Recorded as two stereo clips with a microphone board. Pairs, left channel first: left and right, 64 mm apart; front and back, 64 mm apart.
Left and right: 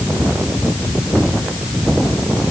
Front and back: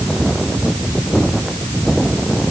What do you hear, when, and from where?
Only background noise.